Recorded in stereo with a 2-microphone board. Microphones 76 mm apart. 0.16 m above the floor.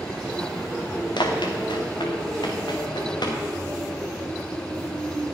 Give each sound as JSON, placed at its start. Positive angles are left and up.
{"t": 1.2, "sound": "running footsteps", "side_deg": 85, "distance_m": 2.5}